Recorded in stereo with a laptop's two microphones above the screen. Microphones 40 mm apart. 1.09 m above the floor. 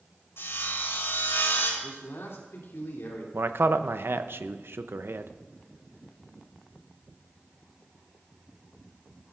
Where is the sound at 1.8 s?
80° left, 3 m.